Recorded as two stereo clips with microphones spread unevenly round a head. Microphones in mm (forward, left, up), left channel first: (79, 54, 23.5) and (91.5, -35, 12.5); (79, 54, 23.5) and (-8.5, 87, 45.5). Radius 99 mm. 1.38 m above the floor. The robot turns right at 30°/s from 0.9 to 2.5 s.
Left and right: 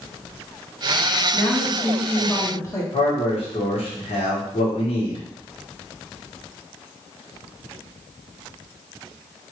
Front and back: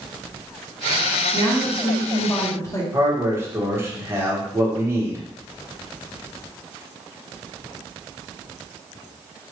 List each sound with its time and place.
1.3 s a woman speaking: 5° left, 1.5 m; by 2.8 s 40° left, 1.5 m
2.9 s a man speaking: 90° left, 1.5 m